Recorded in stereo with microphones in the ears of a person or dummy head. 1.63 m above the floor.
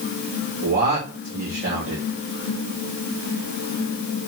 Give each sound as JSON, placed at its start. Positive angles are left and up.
{"t": 0.6, "sound": "a man speaking", "side_deg": -45, "distance_m": 2.5}